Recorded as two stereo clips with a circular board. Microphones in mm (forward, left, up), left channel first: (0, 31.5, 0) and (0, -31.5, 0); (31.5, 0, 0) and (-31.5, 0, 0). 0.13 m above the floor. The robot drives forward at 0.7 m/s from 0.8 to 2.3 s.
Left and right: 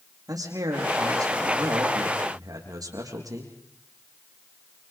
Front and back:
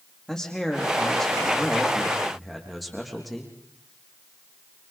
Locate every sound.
0.3 s a man speaking: 80° right, 6.5 m; by 3.5 s 90° right, 6.5 m